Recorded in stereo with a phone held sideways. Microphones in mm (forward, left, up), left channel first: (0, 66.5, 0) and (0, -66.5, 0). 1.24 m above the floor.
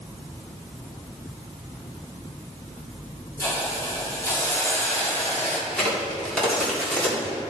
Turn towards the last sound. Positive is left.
turn(degrees=10)  # may be behind; listen again after turning